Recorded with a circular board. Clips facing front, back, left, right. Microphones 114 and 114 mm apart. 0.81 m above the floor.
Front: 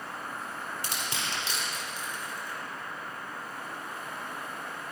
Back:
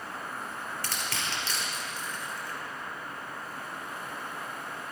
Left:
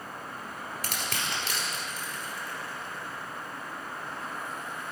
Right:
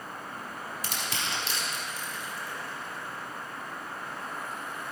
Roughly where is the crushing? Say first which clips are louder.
Even, even; left.